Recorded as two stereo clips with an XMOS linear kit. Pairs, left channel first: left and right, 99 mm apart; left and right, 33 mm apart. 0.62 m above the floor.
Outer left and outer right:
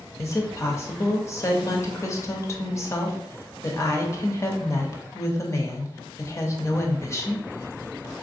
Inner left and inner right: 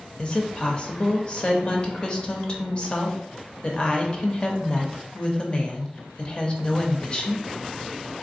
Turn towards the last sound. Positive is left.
turn(degrees=30)  # may be behind; listen again after turning